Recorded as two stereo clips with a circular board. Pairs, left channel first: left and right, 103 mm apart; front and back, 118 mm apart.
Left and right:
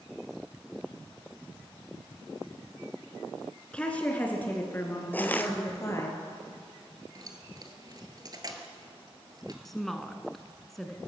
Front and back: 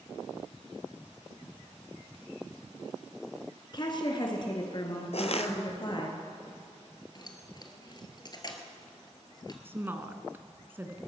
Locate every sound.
3.7 s a woman speaking: 15° left, 2 m; by 6.1 s 35° left, 3 m
5.1 s crushing: 20° left, 1.1 m
7.2 s keys jangling: 45° right, 1.5 m
9.7 s a woman speaking: 175° left, 1.0 m